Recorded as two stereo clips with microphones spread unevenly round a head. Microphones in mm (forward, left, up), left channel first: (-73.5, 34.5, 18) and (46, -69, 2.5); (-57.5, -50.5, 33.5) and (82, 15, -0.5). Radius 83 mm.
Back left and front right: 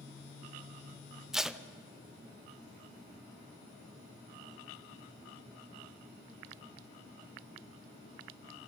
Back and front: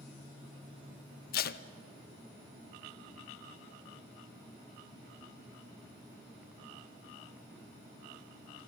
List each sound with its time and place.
1.3 s tape being pulled: 130° right, 0.7 m